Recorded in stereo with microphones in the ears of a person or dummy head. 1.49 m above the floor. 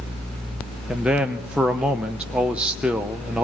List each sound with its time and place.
0.9 s a man speaking: 10° right (ahead or behind), 0.9 m